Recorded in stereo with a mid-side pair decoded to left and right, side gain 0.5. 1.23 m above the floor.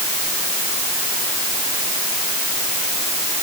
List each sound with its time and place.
Only background noise.